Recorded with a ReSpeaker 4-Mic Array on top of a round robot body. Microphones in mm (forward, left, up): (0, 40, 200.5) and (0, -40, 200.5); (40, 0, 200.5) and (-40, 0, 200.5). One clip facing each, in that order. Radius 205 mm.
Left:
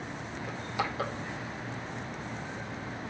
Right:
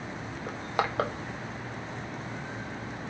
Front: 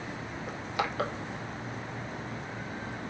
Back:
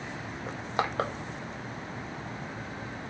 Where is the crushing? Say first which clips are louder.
Right 4 dB, back 2 dB; 125° right, 1.6 m.